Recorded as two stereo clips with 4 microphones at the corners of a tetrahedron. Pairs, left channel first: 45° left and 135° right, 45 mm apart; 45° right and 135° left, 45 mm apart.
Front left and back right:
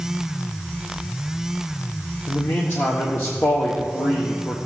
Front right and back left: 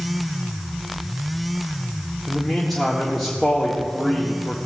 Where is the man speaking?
40° left, 1.2 m.